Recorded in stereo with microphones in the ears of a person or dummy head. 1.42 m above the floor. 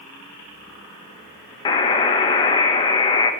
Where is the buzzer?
25° left (ahead or behind), 0.9 m.